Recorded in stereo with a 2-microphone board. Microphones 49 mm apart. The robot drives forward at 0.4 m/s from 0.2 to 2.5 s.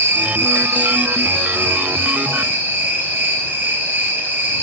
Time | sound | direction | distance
0.0 | an insect | 65° right (ahead or behind) | 1.8 m